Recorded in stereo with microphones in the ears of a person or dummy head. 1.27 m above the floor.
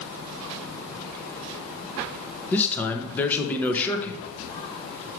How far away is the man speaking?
About 0.9 m.